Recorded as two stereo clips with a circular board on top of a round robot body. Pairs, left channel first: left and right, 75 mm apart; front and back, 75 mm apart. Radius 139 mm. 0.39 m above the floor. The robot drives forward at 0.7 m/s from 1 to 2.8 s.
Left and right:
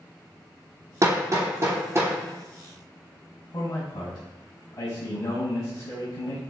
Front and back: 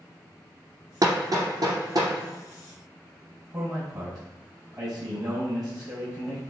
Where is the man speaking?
145° left, 3.5 m.